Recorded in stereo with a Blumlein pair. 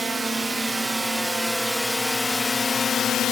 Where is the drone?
10° right; by 3.3 s 30° left.